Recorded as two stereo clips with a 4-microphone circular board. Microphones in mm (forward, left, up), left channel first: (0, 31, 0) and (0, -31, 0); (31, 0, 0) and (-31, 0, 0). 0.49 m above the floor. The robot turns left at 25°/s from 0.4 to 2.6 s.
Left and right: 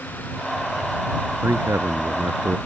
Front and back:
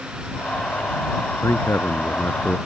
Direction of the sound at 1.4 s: 40° right.